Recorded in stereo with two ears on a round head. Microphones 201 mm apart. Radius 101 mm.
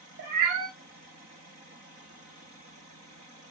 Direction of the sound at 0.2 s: 50° right (ahead or behind).